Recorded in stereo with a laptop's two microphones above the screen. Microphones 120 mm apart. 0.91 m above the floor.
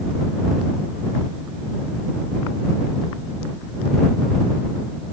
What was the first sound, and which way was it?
Only background noise.